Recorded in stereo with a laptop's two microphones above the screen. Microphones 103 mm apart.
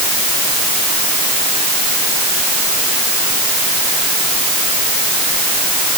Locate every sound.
Only background noise.